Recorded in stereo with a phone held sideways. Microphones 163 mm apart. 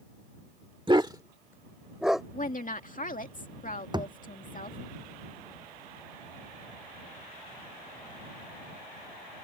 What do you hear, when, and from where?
0.9 s a dog barking: 30° right (ahead or behind); by 2.2 s centre (ahead or behind)
2.3 s a woman speaking: 55° left (ahead or behind)
3.9 s a thud: 25° right (ahead or behind)